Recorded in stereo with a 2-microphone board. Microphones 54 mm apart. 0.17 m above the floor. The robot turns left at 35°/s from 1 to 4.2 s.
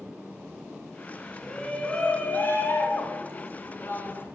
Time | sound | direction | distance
1.4 | a shout | 165° left | 2 m